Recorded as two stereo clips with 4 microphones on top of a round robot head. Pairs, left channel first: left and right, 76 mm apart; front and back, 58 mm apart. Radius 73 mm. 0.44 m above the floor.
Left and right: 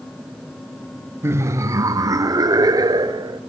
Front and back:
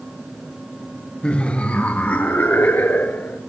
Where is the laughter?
60° right, 1.0 m.